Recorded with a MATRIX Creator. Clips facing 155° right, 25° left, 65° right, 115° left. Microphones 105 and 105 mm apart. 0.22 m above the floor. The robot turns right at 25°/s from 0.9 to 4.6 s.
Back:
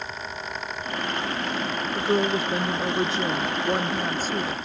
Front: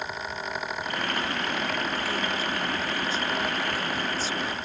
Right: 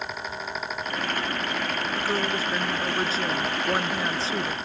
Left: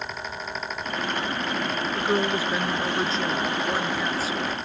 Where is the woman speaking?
175° left; by 4.5 s 120° right.